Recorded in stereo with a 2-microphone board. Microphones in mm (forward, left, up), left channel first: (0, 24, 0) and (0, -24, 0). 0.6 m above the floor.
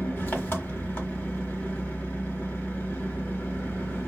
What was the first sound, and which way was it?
An engine running, 45° left (ahead or behind).